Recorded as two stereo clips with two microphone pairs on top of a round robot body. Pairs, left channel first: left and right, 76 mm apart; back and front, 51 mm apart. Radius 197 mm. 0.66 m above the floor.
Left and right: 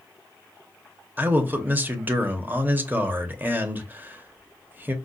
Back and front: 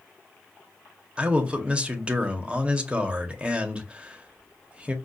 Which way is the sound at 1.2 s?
50° right.